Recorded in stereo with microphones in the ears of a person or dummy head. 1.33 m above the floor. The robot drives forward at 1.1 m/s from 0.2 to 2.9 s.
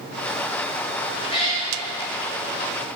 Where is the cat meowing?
40° left (ahead or behind), 1.3 m; by 1.7 s 30° left (ahead or behind), 1.6 m.